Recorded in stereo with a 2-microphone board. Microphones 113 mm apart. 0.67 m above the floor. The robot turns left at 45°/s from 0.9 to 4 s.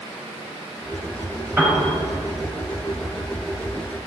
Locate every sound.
1.6 s a piano: 20° right (ahead or behind), 5 m; by 1.9 s 30° right (ahead or behind), 5 m